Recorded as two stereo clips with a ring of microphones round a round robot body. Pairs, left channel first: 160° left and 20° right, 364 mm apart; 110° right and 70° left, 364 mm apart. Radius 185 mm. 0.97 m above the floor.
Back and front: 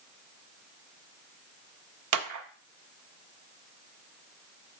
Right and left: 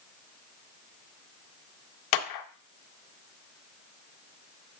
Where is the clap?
75° right, 0.7 m.